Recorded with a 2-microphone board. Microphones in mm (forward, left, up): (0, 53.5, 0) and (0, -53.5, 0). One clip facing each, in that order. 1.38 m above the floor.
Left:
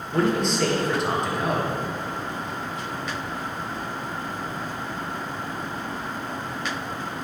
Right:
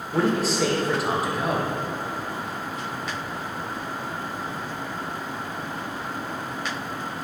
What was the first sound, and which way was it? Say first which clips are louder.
A man speaking: even; 5° right (ahead or behind).